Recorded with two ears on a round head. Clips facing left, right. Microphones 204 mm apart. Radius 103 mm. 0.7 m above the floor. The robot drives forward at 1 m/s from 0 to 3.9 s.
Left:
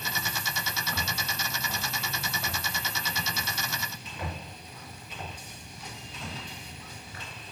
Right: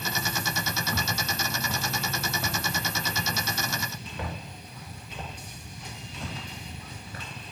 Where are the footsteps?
80° right, 6 m; by 7.5 s 45° right (ahead or behind), 11 m.